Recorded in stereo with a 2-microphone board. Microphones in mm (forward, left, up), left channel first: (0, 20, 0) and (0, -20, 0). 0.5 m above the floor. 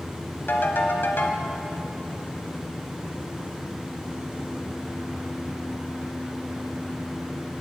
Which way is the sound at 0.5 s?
65° left (ahead or behind).